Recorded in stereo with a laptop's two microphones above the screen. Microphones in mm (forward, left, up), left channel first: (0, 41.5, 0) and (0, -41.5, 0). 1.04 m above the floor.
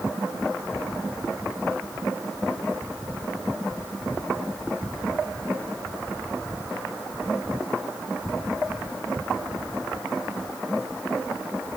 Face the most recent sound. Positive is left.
No sound to turn to.